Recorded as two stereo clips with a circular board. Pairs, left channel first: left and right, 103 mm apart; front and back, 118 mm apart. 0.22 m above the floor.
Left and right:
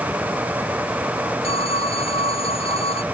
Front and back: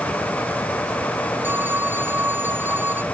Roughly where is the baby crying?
I don't hear a baby crying.